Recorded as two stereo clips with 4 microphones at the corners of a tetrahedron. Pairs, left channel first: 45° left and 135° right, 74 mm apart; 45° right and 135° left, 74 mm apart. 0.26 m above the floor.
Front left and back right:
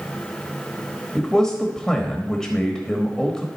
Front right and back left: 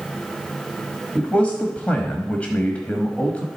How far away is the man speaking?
About 1.0 m.